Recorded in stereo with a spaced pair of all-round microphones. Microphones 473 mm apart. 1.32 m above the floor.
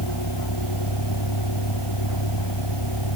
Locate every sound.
0.0 s a vehicle: 60° left (ahead or behind); by 3.2 s 65° left (ahead or behind)